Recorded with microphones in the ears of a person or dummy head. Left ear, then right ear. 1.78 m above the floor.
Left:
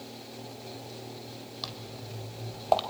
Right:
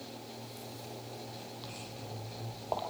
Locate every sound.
1.6 s footsteps: 30° left (ahead or behind), 4.5 m; by 2.8 s 35° left (ahead or behind), 3.5 m